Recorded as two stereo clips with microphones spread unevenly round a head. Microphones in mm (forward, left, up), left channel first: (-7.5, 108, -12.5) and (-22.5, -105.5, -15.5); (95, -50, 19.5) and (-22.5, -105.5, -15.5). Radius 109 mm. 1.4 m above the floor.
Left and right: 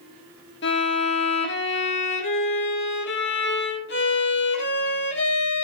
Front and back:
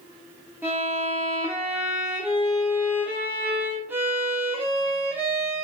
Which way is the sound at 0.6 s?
125° left.